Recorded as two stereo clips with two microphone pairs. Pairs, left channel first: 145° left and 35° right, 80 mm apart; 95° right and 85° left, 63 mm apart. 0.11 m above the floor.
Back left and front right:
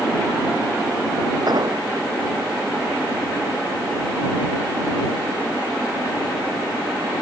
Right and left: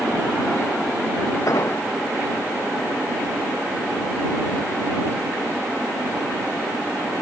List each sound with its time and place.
1.5 s an explosion: 65° right